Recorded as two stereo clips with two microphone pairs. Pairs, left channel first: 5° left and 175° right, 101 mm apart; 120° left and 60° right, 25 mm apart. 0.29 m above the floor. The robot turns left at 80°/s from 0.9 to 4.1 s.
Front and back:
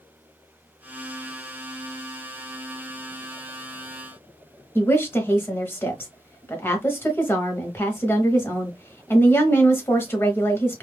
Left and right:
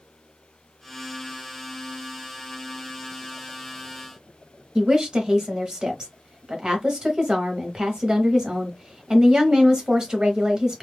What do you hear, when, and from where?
4.8 s a woman speaking: 35° right, 1.0 m